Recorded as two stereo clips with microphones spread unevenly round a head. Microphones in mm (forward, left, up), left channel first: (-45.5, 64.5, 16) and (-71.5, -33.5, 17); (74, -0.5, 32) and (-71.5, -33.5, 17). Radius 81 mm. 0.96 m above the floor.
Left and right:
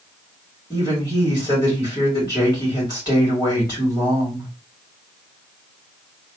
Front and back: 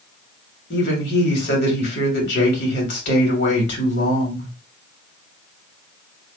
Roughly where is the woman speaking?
Ahead.